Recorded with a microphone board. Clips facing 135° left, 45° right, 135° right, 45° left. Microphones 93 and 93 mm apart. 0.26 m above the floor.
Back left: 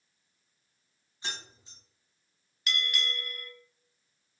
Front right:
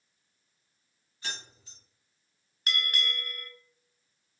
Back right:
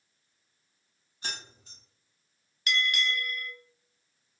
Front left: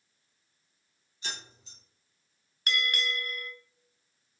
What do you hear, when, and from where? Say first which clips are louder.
1.2 s keys jangling: even, back right 1 dB; 160° right, 1.1 m
2.7 s a bell: front right 1 dB, back right 2 dB; straight ahead, 0.6 m